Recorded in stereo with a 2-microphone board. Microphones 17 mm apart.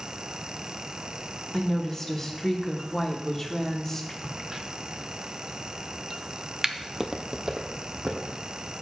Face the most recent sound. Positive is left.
turn(degrees=-60)  # may be behind; listen again after turning